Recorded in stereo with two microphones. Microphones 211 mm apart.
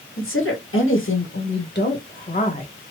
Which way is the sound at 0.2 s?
80° left.